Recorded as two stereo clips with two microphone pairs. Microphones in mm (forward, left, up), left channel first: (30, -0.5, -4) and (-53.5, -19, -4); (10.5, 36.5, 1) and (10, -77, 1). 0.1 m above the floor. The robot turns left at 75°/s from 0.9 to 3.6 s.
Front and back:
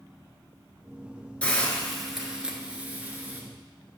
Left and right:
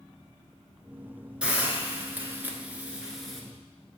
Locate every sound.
1.4 s a hiss: 35° right, 0.9 m; by 3.4 s 175° left, 0.9 m